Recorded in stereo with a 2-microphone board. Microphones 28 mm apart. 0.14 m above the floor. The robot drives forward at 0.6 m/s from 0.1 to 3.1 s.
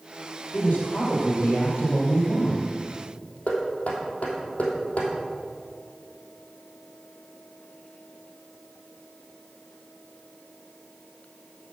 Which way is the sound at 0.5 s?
70° left (ahead or behind).